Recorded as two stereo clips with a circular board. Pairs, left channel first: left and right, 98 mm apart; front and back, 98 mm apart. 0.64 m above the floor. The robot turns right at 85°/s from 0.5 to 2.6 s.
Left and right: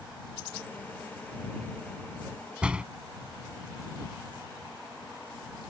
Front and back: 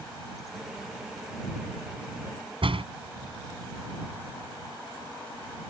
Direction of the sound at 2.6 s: 170° right.